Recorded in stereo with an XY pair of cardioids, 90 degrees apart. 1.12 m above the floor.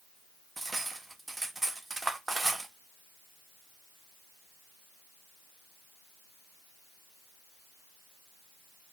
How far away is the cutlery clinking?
About 1.8 m.